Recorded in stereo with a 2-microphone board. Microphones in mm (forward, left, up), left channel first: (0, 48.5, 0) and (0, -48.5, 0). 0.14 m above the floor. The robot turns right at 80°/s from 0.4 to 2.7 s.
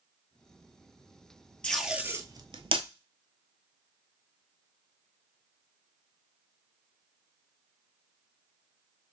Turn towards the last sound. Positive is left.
turn(degrees=-70)  # may be behind; listen again after turning